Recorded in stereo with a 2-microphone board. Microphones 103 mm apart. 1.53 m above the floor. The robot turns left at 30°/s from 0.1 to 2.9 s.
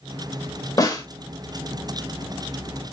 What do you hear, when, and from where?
0.8 s a snare drum: 35° left (ahead or behind), 0.9 m